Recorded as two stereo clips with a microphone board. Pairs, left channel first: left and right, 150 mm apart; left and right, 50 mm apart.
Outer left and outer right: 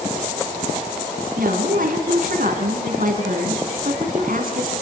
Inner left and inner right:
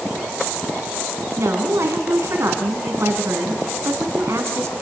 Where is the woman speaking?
65° right (ahead or behind), 3 m.